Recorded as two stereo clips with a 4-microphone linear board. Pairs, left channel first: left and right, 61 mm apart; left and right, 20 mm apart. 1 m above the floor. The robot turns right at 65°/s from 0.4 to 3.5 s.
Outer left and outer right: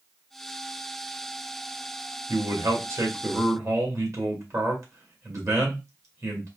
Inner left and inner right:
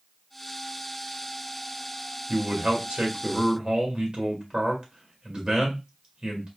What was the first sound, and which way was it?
A man speaking, 135° right.